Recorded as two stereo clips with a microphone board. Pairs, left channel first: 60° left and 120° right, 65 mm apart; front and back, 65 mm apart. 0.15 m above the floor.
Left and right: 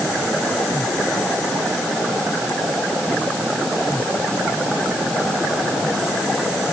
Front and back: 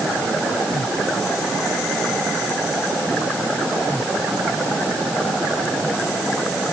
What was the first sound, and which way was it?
Only background noise.